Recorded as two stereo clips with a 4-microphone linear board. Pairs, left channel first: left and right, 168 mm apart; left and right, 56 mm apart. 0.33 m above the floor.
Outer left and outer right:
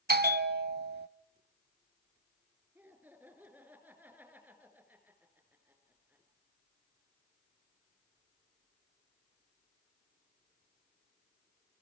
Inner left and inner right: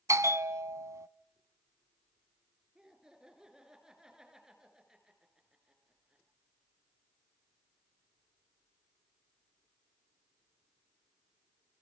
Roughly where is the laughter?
Centre.